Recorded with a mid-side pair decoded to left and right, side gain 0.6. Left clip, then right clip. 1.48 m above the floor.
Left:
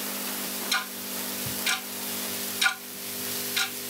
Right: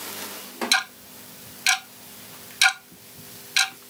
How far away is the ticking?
About 0.9 m.